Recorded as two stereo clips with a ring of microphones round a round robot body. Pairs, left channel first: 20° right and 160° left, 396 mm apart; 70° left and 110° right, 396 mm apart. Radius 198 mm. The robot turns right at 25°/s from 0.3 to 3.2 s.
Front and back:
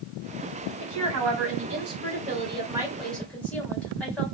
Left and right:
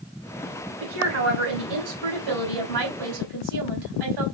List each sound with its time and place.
0.8 s a woman speaking: 170° right, 2 m; by 4.2 s 110° right, 2 m